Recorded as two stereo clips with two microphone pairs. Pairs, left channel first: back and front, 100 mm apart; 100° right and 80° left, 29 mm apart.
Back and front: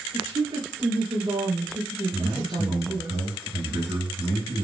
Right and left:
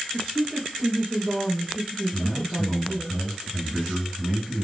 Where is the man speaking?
10° right, 2.0 m.